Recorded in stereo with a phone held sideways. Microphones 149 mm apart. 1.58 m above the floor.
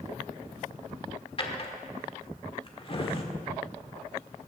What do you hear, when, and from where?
1.4 s a drawer: 40° left (ahead or behind), 1.5 m